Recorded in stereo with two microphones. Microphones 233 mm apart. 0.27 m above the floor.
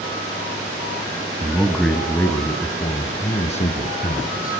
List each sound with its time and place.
1.4 s a man speaking: 10° right (ahead or behind), 1.9 m; by 4.6 s 35° left (ahead or behind), 3.5 m